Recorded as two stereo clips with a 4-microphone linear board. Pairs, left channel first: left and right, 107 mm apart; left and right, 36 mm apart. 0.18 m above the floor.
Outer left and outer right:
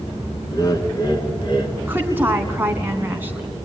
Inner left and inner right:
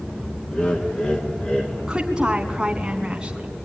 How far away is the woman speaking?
About 1.4 m.